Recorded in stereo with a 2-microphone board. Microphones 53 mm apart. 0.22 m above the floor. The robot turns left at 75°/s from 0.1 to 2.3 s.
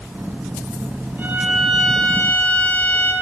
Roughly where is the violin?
Behind right.